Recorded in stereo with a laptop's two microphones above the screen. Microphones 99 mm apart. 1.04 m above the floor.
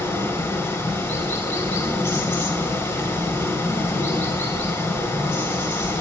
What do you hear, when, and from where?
0.0 s running water: 30° left (ahead or behind), 3.5 m